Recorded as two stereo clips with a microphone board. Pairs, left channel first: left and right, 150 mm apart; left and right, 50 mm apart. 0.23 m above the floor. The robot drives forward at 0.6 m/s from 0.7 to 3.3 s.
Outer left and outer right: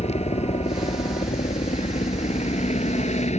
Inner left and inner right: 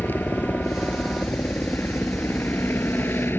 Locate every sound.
0.0 s a helicopter: 45° left (ahead or behind); by 3.4 s 50° left (ahead or behind)